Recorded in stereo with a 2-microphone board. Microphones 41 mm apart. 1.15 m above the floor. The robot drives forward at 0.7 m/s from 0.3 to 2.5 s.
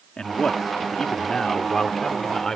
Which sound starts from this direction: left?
A man speaking, at 0.2 s.